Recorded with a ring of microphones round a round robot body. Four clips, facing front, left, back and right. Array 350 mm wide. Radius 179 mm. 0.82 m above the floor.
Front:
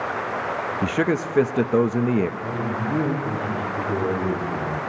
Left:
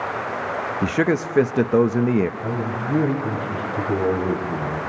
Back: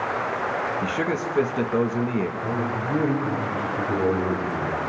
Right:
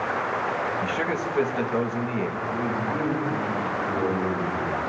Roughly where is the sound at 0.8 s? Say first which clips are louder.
Left 6 dB, front 3 dB; ahead left.